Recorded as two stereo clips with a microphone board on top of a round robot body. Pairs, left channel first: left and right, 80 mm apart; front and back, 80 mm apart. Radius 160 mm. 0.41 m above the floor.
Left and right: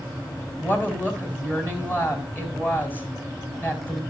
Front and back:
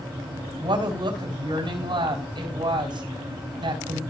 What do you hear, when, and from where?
0.6 s a woman speaking: 155° left, 4 m